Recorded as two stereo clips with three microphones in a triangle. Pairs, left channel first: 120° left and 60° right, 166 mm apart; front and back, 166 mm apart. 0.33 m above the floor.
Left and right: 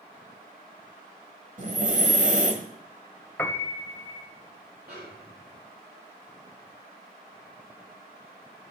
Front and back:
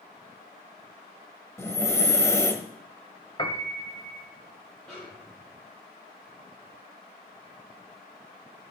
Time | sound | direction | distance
1.6 | breathing | 70° right | 1.3 m
3.4 | a piano | 45° left | 0.9 m
4.9 | a snare drum | 85° right | 7 m